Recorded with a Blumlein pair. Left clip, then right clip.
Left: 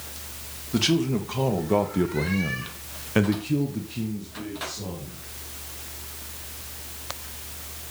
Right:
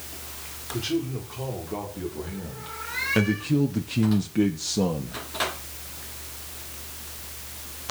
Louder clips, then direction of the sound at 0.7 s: Left 5 dB; 50° left.